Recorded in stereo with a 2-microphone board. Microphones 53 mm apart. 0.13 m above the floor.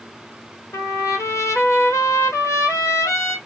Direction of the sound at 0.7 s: 75° left (ahead or behind).